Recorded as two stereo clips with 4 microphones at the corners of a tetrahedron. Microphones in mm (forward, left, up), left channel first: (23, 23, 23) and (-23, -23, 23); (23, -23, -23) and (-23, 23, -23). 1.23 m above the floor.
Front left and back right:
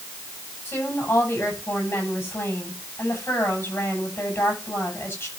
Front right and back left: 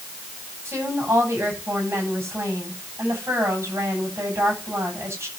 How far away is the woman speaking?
About 8.5 m.